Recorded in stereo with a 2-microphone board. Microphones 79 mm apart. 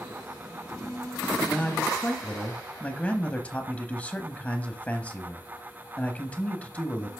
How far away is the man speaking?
About 1.0 m.